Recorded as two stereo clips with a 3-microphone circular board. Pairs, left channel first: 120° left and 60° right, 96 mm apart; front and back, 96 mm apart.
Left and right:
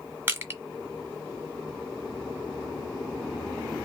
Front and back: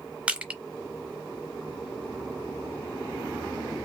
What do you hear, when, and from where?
0.3 s crushing: 110° right, 1.3 m